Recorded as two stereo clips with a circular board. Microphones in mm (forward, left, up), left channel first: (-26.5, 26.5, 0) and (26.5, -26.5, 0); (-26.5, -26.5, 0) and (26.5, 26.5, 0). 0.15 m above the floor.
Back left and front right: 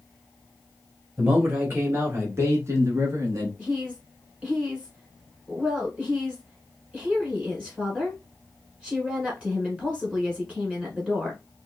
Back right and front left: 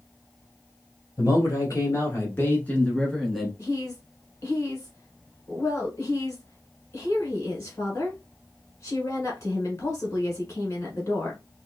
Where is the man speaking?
105° right, 1.9 m; by 3.5 s 45° right, 1.4 m.